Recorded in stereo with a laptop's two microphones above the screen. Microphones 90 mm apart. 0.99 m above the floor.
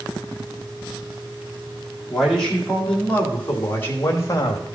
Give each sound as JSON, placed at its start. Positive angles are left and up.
{"t": 2.1, "sound": "a man speaking", "side_deg": 5, "distance_m": 2.5}